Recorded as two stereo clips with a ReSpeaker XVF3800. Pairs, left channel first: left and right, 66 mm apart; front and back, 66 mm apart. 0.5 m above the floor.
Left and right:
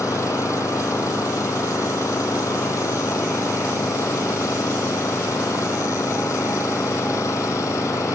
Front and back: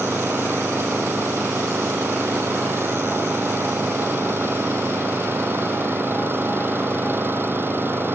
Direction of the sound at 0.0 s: 125° left.